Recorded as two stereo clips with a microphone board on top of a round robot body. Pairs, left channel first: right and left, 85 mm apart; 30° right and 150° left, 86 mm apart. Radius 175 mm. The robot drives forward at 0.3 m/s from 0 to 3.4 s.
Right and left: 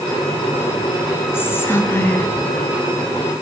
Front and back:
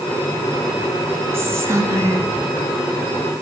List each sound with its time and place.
1.3 s whispering: 150° right, 1.7 m; by 2.3 s 155° right, 1.9 m